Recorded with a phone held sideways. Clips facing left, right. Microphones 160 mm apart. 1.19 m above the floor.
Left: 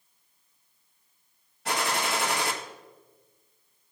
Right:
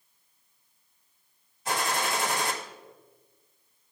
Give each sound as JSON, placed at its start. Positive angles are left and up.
{"t": 1.6, "sound": "a gunshot", "side_deg": 70, "distance_m": 1.1}